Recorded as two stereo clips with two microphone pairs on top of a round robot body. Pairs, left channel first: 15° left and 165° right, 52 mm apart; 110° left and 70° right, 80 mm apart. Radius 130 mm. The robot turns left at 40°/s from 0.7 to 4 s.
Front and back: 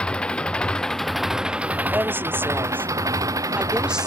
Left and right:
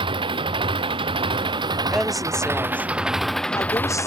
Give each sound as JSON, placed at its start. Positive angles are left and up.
{"t": 0.0, "sound": "an engine running", "azimuth_deg": -60}
{"t": 1.9, "sound": "a woman speaking", "azimuth_deg": -150}